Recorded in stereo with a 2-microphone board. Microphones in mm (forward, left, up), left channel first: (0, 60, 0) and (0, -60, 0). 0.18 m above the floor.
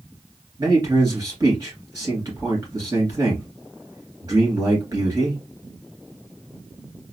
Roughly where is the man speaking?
Right.